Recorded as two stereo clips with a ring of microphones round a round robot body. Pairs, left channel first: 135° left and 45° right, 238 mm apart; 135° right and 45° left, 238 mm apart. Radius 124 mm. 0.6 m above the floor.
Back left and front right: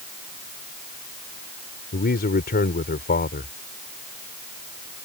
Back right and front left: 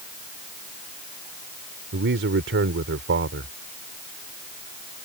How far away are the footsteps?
No footsteps in this recording.